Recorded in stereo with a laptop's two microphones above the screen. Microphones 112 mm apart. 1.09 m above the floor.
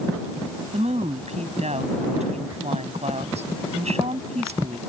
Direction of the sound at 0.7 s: 80° right.